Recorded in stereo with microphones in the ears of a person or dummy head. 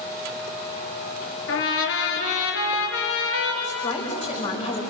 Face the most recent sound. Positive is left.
turn(degrees=30)  # may be behind; listen again after turning